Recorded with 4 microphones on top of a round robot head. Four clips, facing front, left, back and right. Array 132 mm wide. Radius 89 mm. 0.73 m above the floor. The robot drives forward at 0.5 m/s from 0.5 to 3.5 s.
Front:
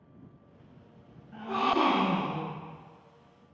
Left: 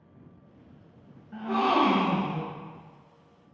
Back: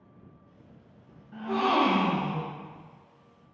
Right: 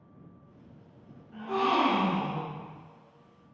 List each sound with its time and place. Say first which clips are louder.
1.3 s a gasp: left 2 dB, back 2 dB; 100° left, 0.6 m; by 2.6 s 160° left, 0.9 m